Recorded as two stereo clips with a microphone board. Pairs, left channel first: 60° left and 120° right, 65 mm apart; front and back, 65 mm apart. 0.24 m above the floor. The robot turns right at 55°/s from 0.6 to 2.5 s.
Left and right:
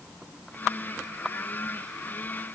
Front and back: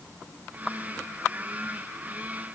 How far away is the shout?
I don't hear a shout.